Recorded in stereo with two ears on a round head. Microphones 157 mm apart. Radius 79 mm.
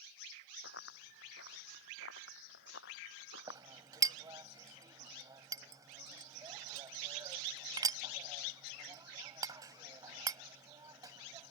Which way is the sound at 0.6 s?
70° left (ahead or behind).